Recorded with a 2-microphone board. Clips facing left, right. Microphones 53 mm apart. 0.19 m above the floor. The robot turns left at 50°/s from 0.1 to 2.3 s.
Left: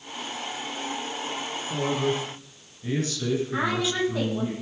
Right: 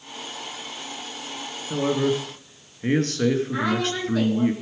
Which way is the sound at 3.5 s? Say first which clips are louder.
Right 1 dB; 15° left (ahead or behind).